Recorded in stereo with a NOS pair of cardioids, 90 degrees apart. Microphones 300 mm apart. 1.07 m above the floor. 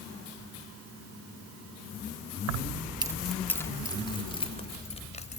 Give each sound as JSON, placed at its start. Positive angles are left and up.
{"t": 2.5, "sound": "keys jangling", "azimuth_deg": -70, "distance_m": 0.6}